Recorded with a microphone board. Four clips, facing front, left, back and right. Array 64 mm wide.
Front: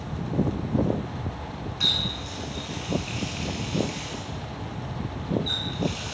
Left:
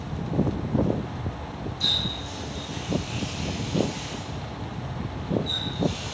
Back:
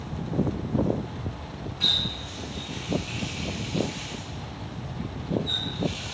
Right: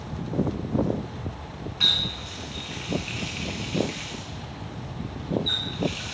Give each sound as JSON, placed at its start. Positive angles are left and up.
{"t": 1.8, "sound": "a running tap", "azimuth_deg": -75, "distance_m": 2.5}